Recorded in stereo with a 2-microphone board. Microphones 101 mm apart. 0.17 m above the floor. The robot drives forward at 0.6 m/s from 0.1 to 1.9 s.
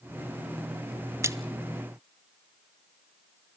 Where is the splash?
30° right (ahead or behind), 0.6 m; by 1.4 s 25° right (ahead or behind), 0.6 m.